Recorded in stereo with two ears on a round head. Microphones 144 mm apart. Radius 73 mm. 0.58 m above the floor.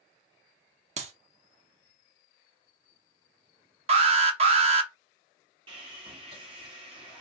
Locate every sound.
1.0 s a clap: 45° right (ahead or behind), 0.7 m
3.9 s an alarm: 40° right (ahead or behind), 0.8 m
5.7 s sawing: 35° right (ahead or behind), 1.4 m